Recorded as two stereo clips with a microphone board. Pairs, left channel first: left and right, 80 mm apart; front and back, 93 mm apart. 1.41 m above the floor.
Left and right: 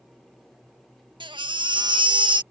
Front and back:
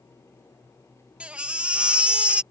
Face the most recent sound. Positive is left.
turn(degrees=-100)